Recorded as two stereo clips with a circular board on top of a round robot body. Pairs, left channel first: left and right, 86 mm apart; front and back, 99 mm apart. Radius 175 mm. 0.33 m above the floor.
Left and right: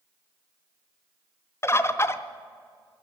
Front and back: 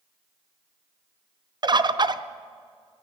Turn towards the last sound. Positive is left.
turn(degrees=145)